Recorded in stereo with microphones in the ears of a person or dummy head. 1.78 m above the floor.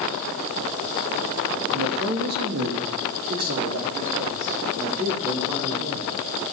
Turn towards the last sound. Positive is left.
turn(degrees=-35)  # may be behind; listen again after turning